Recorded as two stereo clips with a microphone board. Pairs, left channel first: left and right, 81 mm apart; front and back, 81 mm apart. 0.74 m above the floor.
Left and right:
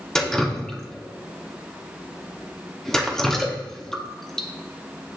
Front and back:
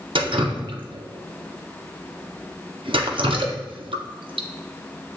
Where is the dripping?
175° left, 0.6 m.